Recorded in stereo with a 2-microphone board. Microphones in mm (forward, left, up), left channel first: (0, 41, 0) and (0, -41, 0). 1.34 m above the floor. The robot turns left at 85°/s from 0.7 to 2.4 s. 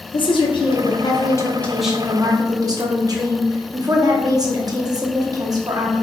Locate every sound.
0.1 s a woman speaking: 95° left, 0.6 m; by 6.0 s 50° right, 0.6 m